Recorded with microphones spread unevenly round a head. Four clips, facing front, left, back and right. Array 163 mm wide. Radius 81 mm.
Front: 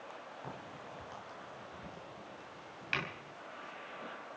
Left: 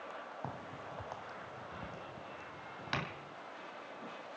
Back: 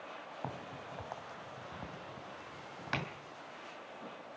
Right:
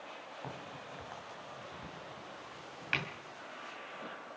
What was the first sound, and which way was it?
A crack, 145° left.